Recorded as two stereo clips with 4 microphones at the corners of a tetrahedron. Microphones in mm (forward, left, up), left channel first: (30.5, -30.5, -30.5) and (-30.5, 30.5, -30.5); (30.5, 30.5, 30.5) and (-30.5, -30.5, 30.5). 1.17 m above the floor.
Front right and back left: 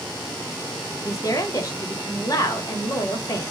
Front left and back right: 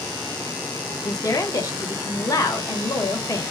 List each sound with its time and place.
1.0 s a woman speaking: straight ahead, 0.7 m